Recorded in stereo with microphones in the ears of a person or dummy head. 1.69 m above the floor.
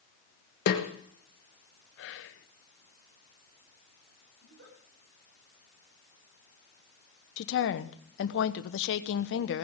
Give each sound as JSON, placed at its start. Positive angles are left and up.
{"t": 0.7, "sound": "a snare drum", "side_deg": 55, "distance_m": 1.7}
{"t": 2.0, "sound": "whispering", "side_deg": 65, "distance_m": 0.9}
{"t": 4.4, "sound": "a giggle", "side_deg": -65, "distance_m": 9.0}
{"t": 7.4, "sound": "a woman speaking", "side_deg": 65, "distance_m": 1.0}